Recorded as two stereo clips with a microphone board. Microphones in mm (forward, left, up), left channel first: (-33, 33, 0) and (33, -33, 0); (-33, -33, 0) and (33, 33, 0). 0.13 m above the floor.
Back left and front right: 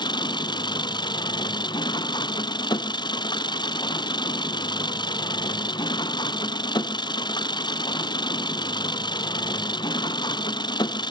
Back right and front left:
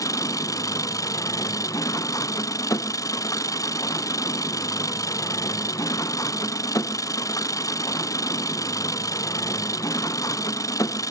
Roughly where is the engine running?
Behind.